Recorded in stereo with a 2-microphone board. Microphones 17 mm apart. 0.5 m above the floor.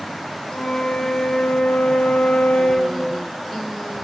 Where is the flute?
85° left, 1.4 m.